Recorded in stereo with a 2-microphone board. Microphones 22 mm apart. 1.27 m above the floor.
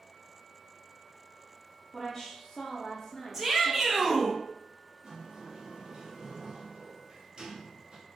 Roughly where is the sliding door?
Right.